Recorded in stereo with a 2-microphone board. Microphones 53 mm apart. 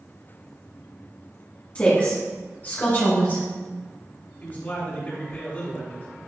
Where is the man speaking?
35° left (ahead or behind), 1.9 m.